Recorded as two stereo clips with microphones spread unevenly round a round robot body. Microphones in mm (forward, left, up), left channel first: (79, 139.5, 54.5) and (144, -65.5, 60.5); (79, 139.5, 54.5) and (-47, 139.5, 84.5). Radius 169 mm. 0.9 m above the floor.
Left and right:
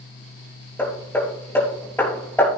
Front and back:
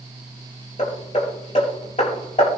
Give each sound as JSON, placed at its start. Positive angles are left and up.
{"t": 0.8, "sound": "hammering", "azimuth_deg": 30, "distance_m": 6.5}